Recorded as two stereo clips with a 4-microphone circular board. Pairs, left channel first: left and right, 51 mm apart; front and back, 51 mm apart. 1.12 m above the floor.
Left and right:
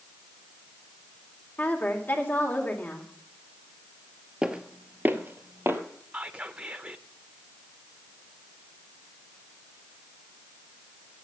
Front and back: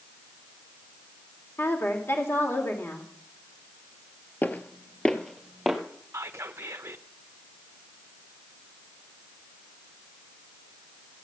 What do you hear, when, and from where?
1.6 s a woman speaking: 40° left, 2.5 m
4.4 s footsteps: 25° right, 1.3 m; by 5.8 s 95° right, 1.8 m
6.1 s whispering: 150° right, 0.5 m